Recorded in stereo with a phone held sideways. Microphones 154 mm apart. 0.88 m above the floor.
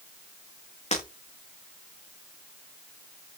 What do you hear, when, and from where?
0.9 s breaking glass: 45° left (ahead or behind), 7 m